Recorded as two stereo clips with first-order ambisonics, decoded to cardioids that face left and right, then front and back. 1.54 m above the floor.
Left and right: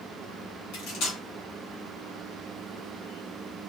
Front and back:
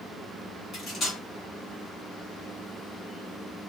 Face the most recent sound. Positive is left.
turn(degrees=65)